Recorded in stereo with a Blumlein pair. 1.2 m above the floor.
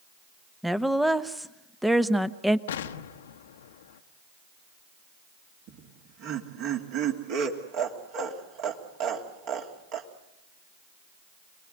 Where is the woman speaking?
Straight ahead, 1.0 m.